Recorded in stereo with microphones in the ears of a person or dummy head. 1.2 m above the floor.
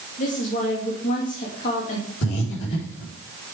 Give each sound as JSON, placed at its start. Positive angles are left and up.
{"t": 0.2, "sound": "a woman speaking", "side_deg": 45, "distance_m": 2.5}
{"t": 2.2, "sound": "breathing", "side_deg": 70, "distance_m": 3.5}